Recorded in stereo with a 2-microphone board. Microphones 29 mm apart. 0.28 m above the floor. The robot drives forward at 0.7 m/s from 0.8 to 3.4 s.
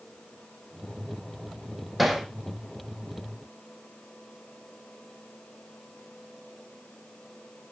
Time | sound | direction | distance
2.0 | hammering | 5° right (ahead or behind) | 3.5 m